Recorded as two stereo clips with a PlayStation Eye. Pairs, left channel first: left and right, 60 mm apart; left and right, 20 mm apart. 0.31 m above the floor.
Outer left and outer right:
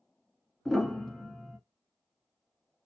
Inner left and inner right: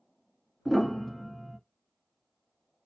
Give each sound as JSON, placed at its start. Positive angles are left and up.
{"t": 0.7, "sound": "a piano", "side_deg": 5, "distance_m": 0.8}